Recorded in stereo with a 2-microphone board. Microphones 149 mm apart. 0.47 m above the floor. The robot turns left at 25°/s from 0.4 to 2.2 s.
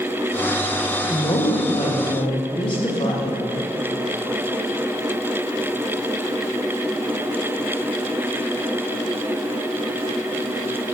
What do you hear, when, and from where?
1.1 s a woman speaking: 35° left (ahead or behind), 1.0 m